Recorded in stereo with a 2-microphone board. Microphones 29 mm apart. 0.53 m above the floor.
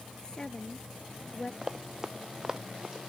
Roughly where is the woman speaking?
Left.